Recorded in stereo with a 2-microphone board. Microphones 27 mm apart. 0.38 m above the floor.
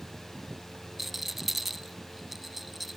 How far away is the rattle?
About 0.7 m.